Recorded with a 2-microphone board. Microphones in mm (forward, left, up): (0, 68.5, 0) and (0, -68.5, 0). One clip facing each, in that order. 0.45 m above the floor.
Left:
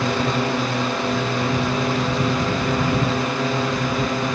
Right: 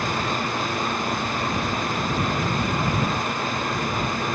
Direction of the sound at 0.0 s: 70° left (ahead or behind).